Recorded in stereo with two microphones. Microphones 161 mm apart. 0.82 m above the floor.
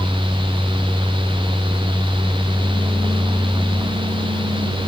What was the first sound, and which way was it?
Only background noise.